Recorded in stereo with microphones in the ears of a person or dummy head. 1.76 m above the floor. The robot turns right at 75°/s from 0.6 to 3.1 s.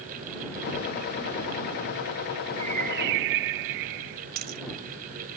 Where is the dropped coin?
50° right (ahead or behind).